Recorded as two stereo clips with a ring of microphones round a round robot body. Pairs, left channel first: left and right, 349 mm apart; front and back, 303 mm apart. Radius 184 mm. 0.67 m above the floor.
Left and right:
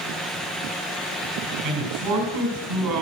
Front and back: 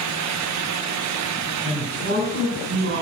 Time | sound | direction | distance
1.6 | a man speaking | 120° right | 5.5 m